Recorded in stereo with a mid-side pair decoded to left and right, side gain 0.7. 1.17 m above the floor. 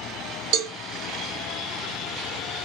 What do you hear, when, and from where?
0.5 s a cowbell: 65° right, 0.9 m